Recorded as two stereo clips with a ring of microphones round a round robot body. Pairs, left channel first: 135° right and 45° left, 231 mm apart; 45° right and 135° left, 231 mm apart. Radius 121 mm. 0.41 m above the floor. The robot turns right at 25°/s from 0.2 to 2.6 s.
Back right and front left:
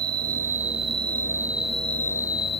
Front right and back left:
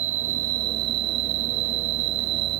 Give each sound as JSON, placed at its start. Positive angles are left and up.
{"t": 0.0, "sound": "an insect", "azimuth_deg": 95}